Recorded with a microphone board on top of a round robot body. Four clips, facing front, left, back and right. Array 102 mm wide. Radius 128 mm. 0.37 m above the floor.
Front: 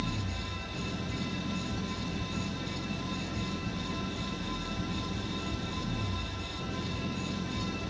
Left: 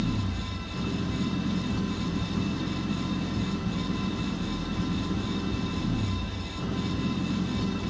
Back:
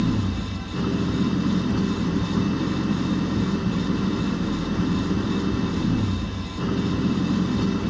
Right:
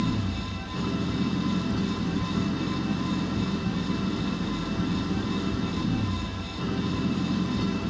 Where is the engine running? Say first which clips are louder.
Right 2 dB, back 12 dB; 165° right.